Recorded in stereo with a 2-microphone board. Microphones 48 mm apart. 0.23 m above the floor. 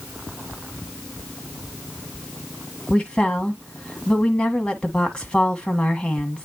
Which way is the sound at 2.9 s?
15° left (ahead or behind).